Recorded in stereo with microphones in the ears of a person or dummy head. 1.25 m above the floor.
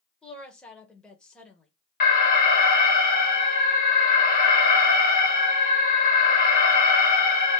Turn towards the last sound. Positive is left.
turn(degrees=40)  # may be behind; listen again after turning